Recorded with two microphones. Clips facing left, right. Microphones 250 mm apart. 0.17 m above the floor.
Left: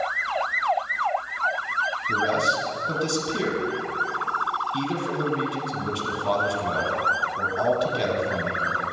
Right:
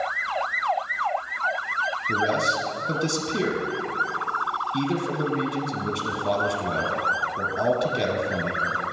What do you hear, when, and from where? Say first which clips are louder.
2.1 s a man speaking: even; 20° right (ahead or behind), 1.1 m